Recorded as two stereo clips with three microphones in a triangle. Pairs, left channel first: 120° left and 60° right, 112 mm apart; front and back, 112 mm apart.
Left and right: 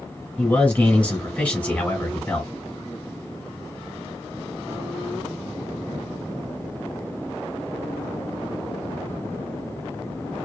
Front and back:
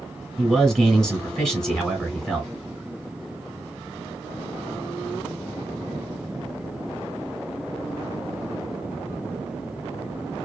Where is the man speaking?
70° left, 1.4 m.